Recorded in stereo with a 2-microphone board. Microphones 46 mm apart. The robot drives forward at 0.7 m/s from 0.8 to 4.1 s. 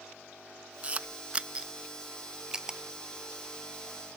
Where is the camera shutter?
30° right (ahead or behind); by 2.8 s 10° right (ahead or behind).